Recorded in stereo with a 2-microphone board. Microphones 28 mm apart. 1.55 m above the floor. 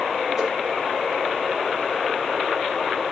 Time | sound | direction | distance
0.4 | a whoosh | 5° right (ahead or behind) | 6.5 m